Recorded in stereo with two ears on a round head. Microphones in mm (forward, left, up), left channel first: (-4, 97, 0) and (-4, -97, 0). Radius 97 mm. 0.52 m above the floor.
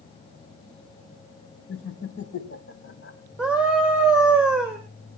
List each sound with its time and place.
1.7 s laughter: 60° left (ahead or behind), 2 m; by 3.2 s 55° left (ahead or behind), 3.5 m
3.4 s a scream: 5° right (ahead or behind), 2.5 m